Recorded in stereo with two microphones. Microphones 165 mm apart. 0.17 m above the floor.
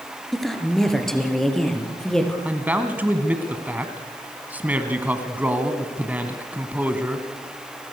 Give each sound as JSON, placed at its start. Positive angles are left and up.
{"t": 0.3, "sound": "a woman speaking", "side_deg": 0, "distance_m": 3.0}
{"t": 2.5, "sound": "a man speaking", "side_deg": -10, "distance_m": 1.7}